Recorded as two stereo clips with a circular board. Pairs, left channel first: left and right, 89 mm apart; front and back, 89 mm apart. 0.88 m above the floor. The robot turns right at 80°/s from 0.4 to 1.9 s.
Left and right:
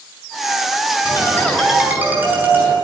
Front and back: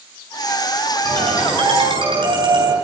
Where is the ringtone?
135° left, 8.5 m; by 2.8 s 160° right, 8.5 m.